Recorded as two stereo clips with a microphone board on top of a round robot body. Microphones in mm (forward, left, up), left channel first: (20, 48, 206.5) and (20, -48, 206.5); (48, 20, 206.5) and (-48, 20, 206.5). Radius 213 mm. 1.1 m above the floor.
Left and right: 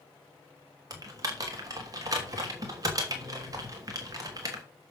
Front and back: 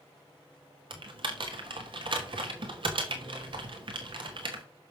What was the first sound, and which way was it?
Typing on a keyboard, 145° right.